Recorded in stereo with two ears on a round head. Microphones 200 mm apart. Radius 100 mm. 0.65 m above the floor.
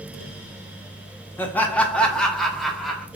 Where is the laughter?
10° left (ahead or behind), 0.7 m; by 3.0 s centre (ahead or behind), 1.3 m.